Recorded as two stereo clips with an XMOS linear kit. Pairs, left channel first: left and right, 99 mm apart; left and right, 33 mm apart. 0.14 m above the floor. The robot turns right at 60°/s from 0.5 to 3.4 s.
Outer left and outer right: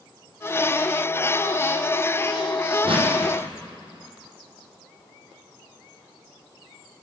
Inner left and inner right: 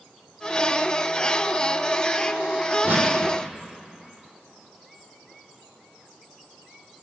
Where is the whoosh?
65° right (ahead or behind), 5.5 m; by 3.1 s 75° right (ahead or behind), 5.5 m.